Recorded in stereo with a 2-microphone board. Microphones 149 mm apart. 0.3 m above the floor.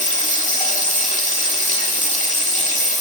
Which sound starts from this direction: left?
Running water, at 0.0 s.